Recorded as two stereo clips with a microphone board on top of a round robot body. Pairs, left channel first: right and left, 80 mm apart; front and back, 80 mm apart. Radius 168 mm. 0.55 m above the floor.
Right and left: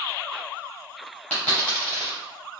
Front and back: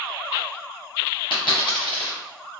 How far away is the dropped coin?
About 0.6 m.